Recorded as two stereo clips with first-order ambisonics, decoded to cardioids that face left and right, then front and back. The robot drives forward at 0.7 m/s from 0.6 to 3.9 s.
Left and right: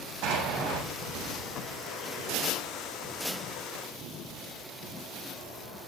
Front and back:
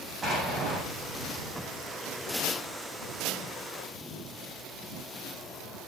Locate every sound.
0.2 s an explosion: 110° right, 7 m